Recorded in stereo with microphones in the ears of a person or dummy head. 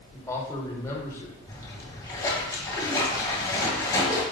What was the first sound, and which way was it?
A man speaking, 20° left (ahead or behind).